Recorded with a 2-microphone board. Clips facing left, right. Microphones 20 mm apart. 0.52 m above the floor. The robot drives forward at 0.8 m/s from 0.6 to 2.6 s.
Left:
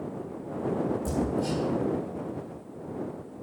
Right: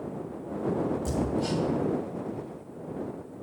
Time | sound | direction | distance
1.1 | hammering | 15° right (ahead or behind) | 2 m